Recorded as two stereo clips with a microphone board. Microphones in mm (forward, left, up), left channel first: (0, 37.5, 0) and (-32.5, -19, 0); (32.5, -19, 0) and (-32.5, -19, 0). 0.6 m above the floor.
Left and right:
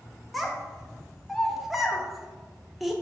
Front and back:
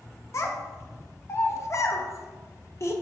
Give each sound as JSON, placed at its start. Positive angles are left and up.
{"t": 0.3, "sound": "a child speaking", "azimuth_deg": -35, "distance_m": 0.6}